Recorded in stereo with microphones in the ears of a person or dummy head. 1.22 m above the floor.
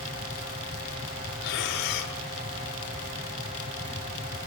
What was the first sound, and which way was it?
Breathing, 70° left (ahead or behind).